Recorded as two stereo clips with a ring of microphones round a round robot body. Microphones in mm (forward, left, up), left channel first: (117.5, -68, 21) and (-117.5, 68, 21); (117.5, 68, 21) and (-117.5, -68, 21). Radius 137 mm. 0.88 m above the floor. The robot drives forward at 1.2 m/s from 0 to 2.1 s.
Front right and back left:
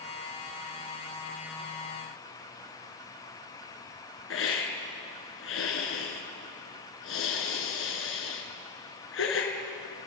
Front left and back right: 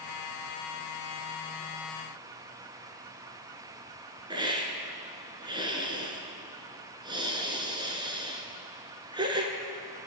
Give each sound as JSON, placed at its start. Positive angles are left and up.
{"t": 4.3, "sound": "a hiss", "azimuth_deg": -75, "distance_m": 3.0}